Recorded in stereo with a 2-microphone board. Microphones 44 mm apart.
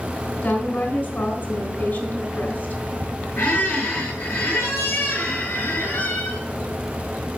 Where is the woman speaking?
55° left (ahead or behind), 3 m.